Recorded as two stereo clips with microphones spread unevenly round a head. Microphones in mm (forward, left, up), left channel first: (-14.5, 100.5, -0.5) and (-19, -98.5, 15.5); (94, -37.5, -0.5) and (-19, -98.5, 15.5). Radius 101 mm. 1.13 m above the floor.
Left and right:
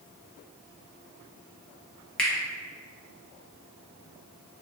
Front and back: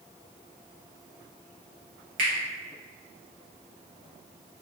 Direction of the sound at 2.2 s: 170° left.